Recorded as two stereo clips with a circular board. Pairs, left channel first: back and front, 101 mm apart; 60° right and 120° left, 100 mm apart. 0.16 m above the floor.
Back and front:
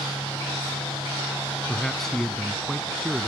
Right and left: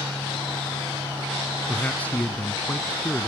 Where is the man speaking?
100° right.